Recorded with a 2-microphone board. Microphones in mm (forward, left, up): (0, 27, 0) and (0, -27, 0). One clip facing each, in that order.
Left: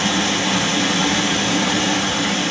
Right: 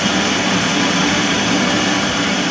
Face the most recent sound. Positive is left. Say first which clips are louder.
# right 3 dB
turn(degrees=-40)  # may be behind; listen again after turning